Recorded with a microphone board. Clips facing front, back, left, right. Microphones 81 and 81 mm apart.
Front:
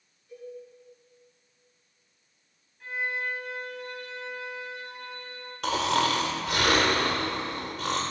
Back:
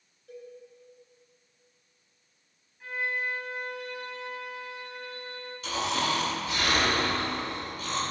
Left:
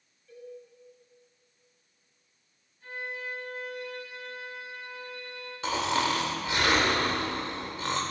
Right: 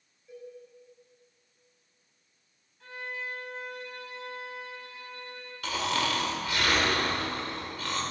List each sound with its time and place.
0.3 s a cowbell: 160° right, 5.5 m
2.8 s a violin: 95° right, 5 m
5.6 s snoring: 25° left, 2 m